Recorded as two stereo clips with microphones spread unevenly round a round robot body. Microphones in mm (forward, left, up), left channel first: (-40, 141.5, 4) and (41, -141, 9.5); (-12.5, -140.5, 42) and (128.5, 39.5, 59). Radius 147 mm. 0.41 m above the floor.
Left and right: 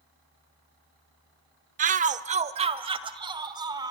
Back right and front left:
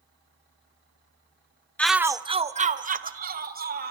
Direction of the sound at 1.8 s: 65° right.